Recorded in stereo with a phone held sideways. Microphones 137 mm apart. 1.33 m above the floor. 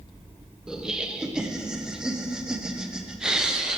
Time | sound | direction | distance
0.7 | laughter | 5° right (ahead or behind) | 0.6 m